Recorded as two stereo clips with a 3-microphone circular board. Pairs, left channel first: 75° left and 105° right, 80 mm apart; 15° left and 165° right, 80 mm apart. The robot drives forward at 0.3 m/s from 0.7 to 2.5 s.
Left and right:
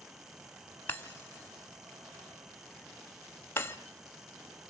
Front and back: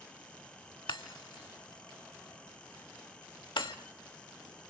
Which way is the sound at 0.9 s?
10° left.